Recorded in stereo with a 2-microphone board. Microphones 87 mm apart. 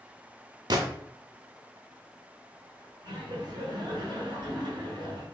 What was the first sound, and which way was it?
A gunshot, 55° right (ahead or behind).